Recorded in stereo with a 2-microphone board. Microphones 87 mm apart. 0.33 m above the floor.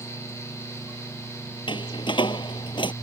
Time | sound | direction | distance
1.7 | a door slam | 65° left (ahead or behind) | ?